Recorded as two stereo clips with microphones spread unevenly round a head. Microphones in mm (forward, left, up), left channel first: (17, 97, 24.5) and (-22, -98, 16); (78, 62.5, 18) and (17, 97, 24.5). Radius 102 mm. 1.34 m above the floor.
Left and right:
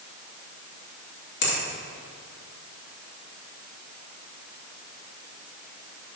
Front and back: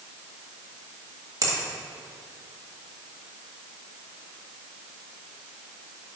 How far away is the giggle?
I don't hear a giggle.